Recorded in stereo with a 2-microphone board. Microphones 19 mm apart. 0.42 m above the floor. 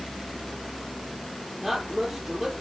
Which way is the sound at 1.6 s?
10° right (ahead or behind).